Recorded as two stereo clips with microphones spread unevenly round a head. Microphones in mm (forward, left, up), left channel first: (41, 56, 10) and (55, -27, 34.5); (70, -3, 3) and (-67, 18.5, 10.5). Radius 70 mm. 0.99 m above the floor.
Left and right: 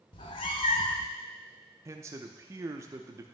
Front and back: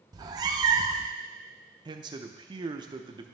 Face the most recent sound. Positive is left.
turn(degrees=-145)